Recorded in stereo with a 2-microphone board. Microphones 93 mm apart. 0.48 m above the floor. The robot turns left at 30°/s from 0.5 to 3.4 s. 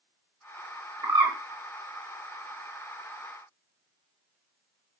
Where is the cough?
No cough in this recording.